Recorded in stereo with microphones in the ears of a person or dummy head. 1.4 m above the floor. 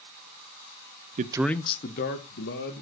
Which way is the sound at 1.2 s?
40° right (ahead or behind).